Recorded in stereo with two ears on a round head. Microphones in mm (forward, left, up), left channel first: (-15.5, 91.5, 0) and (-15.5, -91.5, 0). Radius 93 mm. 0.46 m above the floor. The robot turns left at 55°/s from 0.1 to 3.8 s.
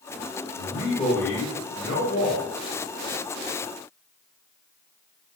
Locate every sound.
0.6 s a man speaking: 155° right, 1.2 m; by 2.5 s 100° left, 1.2 m